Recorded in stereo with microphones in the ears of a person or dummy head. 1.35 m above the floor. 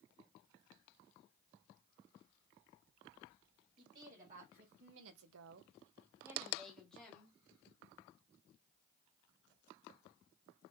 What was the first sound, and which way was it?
A woman speaking, 40° right (ahead or behind).